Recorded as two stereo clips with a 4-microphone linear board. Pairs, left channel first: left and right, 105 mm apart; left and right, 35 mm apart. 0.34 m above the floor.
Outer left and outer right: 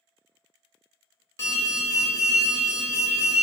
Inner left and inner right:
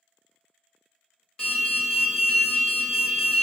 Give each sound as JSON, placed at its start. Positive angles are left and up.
{"t": 1.4, "sound": "an alarm", "side_deg": 30, "distance_m": 0.9}